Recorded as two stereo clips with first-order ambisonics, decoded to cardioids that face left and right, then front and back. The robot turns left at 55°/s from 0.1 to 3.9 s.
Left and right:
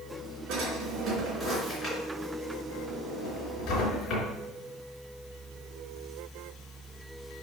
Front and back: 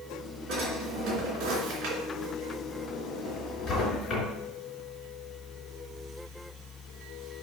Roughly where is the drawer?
Behind right.